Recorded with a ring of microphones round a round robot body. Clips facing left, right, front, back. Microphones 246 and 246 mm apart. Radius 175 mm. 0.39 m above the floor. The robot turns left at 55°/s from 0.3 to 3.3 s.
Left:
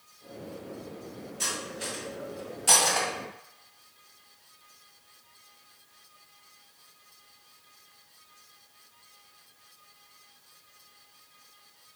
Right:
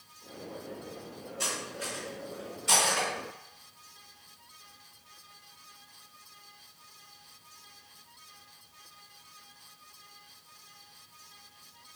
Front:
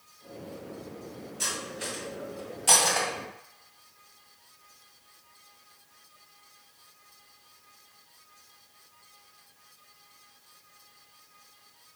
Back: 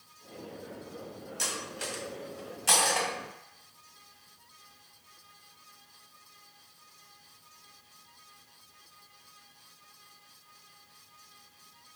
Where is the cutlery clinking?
165° left, 1.9 m; by 3.1 s 75° left, 1.9 m.